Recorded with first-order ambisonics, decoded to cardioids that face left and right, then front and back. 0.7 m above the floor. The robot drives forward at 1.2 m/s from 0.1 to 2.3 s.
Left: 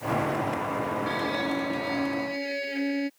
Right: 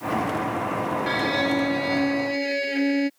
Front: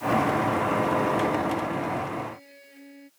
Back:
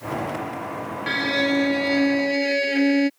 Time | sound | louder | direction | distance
1.1 | a violin | right 5 dB, back 3 dB | 155° right | ?